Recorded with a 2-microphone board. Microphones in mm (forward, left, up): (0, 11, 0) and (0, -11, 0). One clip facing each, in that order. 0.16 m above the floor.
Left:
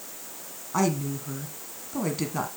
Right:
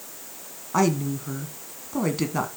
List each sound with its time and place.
0.7 s a woman speaking: 15° right (ahead or behind), 1.1 m